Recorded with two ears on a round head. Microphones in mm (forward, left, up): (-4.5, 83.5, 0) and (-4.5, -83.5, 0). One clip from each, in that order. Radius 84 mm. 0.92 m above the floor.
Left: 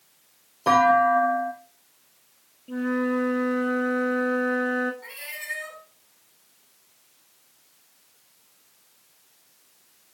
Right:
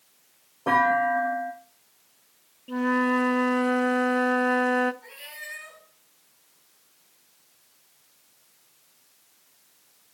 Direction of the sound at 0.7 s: 70° left (ahead or behind).